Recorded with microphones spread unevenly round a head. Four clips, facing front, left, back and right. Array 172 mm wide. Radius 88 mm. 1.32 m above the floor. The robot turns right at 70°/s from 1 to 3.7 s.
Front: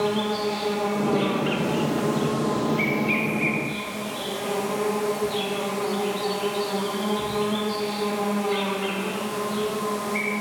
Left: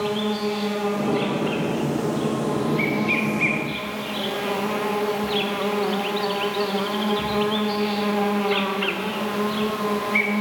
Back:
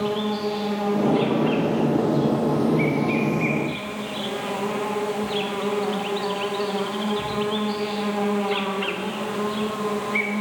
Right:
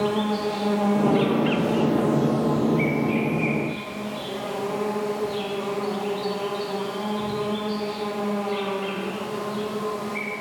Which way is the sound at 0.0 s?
95° right.